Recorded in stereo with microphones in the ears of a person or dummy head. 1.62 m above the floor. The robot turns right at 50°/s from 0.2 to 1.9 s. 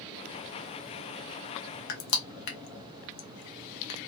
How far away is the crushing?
About 0.7 m.